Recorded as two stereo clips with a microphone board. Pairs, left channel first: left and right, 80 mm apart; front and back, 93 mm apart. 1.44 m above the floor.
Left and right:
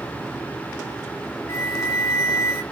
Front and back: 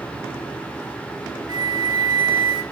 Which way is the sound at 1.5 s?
140° left.